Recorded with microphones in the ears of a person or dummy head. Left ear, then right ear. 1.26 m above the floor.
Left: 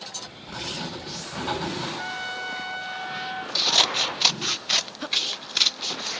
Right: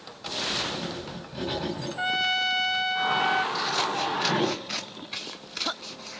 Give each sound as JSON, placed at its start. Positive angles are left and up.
{"t": 0.5, "sound": "writing", "side_deg": 45, "distance_m": 6.5}
{"t": 2.0, "sound": "a trumpet", "side_deg": -75, "distance_m": 1.0}
{"t": 3.5, "sound": "scissors", "side_deg": 35, "distance_m": 0.5}